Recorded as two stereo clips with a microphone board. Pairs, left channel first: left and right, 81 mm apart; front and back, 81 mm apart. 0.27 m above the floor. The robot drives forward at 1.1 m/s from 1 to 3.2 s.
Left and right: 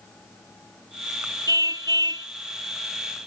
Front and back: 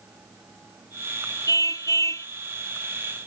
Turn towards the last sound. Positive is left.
turn(degrees=-70)